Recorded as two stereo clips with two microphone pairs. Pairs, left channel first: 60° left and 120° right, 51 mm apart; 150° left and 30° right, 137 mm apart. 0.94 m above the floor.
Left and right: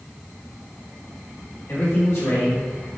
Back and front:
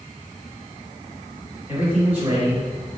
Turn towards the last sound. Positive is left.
turn(degrees=40)